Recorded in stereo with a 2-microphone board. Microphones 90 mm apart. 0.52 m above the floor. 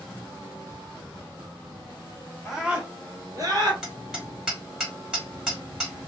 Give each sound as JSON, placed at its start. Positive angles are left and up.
{"t": 2.5, "sound": "a scream", "side_deg": 0, "distance_m": 0.8}
{"t": 3.8, "sound": "hammering", "side_deg": -10, "distance_m": 1.5}